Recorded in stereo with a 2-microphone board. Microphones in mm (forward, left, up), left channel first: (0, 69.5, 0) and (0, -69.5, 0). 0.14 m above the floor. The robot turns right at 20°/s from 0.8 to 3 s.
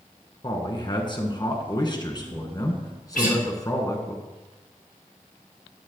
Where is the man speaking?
85° left, 1.5 m; by 4.2 s 130° left, 1.5 m.